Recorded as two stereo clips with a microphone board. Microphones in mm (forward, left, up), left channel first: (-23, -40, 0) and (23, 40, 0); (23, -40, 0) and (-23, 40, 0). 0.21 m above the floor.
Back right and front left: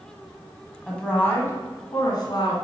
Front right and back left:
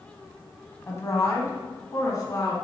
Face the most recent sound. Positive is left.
turn(degrees=-100)